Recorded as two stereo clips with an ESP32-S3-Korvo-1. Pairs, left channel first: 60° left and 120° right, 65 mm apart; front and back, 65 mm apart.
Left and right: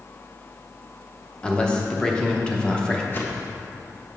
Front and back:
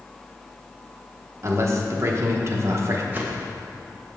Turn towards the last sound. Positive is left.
turn(degrees=120)